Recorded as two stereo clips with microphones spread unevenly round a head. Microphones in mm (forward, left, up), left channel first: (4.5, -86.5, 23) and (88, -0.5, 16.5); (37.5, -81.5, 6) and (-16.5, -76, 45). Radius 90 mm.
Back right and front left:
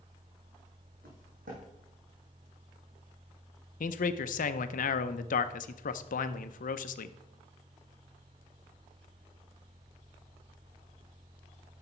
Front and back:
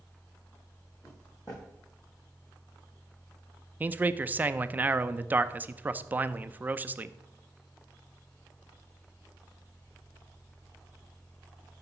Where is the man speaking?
135° right, 0.6 m.